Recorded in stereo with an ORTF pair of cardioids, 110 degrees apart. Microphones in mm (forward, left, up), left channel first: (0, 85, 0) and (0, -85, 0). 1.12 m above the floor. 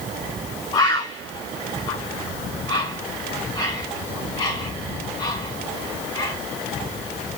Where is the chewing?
No chewing in this recording.